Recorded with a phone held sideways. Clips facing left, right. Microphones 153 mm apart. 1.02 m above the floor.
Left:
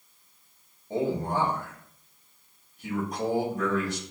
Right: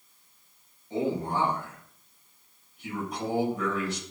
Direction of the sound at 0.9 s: 45° left (ahead or behind).